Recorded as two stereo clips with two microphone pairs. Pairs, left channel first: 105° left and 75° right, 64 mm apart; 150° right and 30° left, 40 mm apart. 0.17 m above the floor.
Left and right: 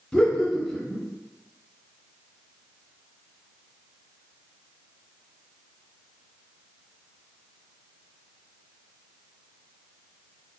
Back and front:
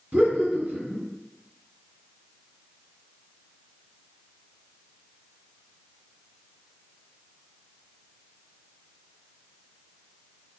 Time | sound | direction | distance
0.1 | laughter | 35° left | 1.7 m